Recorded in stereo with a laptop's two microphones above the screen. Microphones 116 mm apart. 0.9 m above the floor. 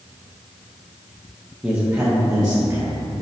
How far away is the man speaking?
About 0.7 m.